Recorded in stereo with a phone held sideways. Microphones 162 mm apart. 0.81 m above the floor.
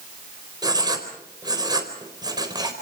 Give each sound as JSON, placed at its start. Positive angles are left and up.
{"t": 0.6, "sound": "writing", "side_deg": -25, "distance_m": 4.0}